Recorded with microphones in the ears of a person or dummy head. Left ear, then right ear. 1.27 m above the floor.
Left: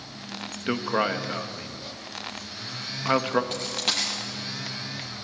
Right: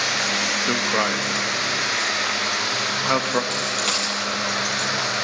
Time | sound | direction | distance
0.7 | a man speaking | centre (ahead or behind) | 1.2 m
3.5 | a dropped coin | 5° right (ahead or behind) | 6 m